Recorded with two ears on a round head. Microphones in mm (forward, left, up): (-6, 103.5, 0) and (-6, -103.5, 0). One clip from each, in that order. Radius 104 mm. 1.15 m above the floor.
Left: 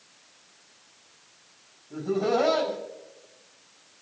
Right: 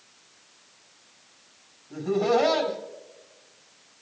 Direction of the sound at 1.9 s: 35° right (ahead or behind).